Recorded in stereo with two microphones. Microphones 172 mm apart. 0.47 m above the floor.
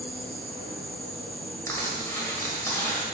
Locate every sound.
0.0 s an insect: 35° right (ahead or behind), 1.9 m
1.7 s crushing: 15° left (ahead or behind), 1.4 m